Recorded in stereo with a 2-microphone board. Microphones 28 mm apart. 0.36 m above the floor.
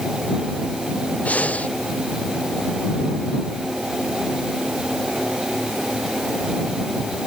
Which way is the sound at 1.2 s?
60° left (ahead or behind).